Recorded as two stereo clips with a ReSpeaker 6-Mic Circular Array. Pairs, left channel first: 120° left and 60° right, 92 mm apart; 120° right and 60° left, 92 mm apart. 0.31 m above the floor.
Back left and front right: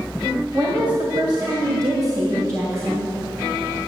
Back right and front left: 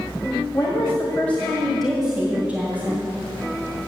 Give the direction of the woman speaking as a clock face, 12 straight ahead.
3 o'clock.